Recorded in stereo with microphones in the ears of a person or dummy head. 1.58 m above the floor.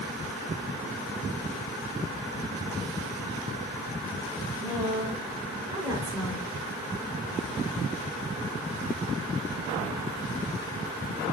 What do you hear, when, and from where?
4.6 s a woman speaking: 15° right (ahead or behind), 8.5 m; by 6.5 s 10° right (ahead or behind), 7 m